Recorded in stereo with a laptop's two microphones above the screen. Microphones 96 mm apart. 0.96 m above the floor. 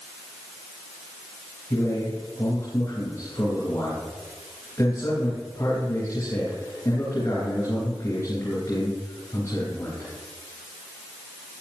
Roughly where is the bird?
I don't hear a bird.